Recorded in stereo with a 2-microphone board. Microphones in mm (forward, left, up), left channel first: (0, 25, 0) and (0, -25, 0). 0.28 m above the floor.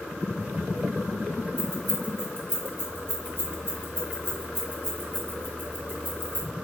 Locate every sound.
1.6 s keys jangling: 50° left (ahead or behind), 1.2 m